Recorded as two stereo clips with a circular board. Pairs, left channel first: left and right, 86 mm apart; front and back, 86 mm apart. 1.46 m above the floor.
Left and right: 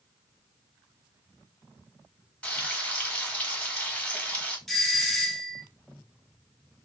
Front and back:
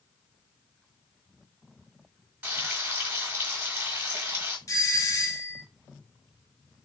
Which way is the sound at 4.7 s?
5° left.